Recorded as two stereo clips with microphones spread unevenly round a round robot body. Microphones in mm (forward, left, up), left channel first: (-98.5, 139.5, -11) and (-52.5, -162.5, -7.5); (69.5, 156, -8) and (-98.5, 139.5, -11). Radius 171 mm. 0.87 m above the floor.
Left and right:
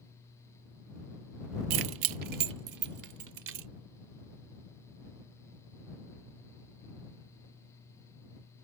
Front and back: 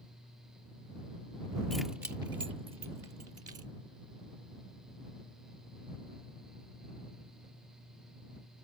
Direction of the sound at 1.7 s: 80° right.